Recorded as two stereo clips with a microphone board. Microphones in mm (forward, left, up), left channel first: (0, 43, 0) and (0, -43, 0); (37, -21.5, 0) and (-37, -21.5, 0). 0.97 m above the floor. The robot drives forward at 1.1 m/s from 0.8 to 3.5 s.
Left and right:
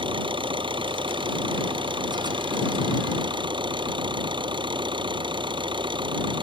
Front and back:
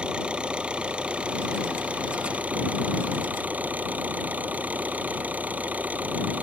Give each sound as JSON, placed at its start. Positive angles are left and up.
{"t": 0.0, "sound": "an engine running", "azimuth_deg": -105}